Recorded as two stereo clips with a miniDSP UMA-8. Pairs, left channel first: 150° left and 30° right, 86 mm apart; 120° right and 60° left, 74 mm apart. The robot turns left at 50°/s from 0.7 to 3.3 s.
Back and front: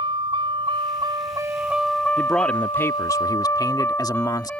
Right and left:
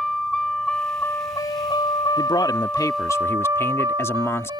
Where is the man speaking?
115° right; by 4.5 s 170° right.